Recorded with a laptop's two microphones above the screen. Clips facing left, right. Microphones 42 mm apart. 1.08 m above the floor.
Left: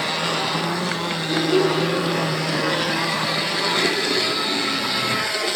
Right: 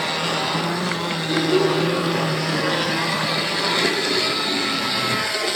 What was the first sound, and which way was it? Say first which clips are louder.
A child speaking: even; 15° right (ahead or behind).